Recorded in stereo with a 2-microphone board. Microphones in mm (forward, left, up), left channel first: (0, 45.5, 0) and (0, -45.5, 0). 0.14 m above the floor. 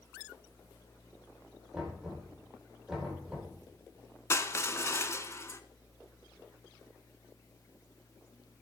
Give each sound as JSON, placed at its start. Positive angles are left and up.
{"t": 1.7, "sound": "knocking", "side_deg": -10, "distance_m": 5.0}
{"t": 4.3, "sound": "crushing", "side_deg": 30, "distance_m": 0.6}